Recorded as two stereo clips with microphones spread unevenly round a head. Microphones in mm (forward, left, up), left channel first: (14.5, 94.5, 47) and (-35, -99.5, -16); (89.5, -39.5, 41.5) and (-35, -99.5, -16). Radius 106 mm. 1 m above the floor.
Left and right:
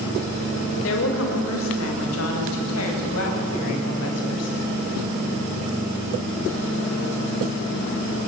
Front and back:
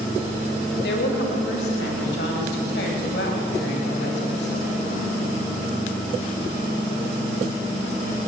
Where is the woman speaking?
45° left, 5 m; by 4.7 s 60° left, 7 m.